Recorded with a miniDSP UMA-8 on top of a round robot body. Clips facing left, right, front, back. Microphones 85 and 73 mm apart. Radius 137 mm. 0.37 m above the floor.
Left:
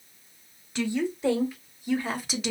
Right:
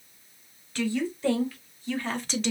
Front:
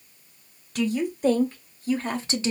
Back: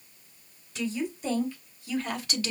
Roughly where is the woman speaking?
Ahead.